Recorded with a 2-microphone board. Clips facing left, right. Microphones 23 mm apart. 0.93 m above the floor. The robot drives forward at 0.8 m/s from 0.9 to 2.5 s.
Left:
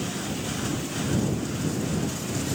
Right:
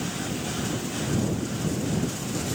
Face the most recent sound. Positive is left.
No sound to turn to.